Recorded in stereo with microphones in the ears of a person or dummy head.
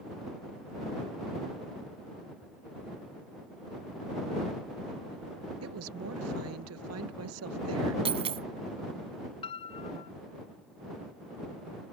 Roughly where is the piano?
Left.